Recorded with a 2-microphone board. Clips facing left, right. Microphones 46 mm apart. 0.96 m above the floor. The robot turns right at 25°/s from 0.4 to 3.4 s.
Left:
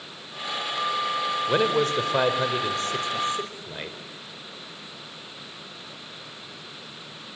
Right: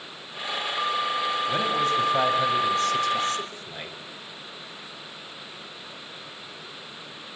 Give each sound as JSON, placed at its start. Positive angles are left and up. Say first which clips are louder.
{"t": 1.5, "sound": "a man speaking", "louder": "left 4 dB", "azimuth_deg": 110, "distance_m": 4.0}